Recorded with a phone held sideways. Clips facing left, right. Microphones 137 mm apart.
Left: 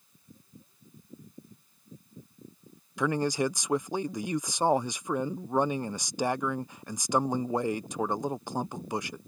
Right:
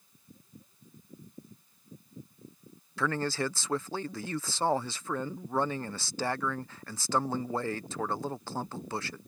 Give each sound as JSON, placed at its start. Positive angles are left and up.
{"t": 3.0, "sound": "a man speaking", "side_deg": 15}